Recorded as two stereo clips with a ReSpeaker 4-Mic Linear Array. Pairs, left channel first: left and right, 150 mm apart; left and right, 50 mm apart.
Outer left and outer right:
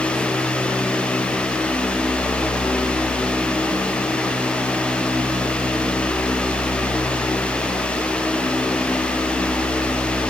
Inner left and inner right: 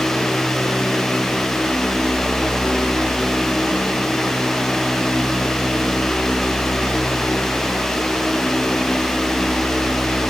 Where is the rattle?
No rattle in this recording.